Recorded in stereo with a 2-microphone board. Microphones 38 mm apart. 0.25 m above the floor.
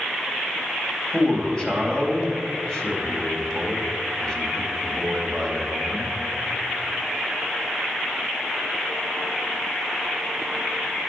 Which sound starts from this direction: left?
A man speaking, at 1.1 s.